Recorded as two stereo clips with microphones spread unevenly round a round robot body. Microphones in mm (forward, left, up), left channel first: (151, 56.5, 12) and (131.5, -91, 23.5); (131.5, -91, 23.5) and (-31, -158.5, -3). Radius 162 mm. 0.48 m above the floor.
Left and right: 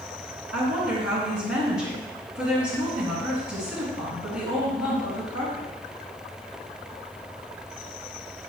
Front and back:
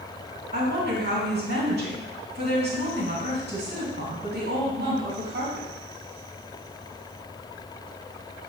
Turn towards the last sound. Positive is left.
turn(degrees=-145)